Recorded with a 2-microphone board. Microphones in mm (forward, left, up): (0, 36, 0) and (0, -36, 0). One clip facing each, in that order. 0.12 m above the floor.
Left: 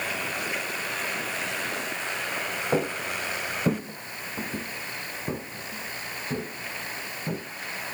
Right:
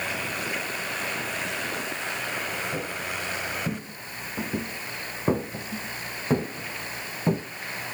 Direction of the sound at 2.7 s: 80° left.